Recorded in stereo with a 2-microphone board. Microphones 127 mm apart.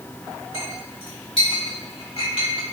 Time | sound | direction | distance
0.5 | a clink | 50° left (ahead or behind) | 3.5 m